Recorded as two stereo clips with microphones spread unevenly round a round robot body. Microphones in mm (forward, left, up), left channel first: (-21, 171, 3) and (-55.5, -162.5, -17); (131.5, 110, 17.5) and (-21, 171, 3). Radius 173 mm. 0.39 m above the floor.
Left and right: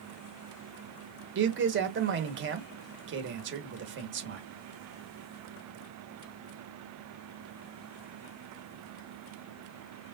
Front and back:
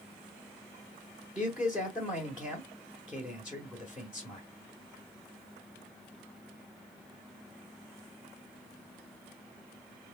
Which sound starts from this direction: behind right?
A man speaking, at 1.4 s.